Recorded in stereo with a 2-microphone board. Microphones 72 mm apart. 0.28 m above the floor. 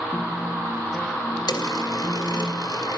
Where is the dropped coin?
80° left, 2.5 m.